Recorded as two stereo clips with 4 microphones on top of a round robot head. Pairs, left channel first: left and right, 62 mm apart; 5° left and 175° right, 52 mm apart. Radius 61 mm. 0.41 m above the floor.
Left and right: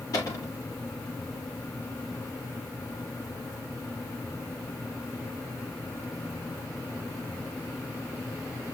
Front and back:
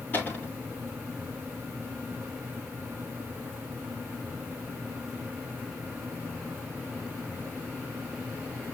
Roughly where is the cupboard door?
Ahead left.